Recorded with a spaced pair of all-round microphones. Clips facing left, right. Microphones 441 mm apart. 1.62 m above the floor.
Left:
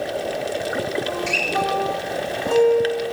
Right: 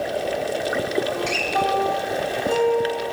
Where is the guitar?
65° left (ahead or behind), 3.5 m.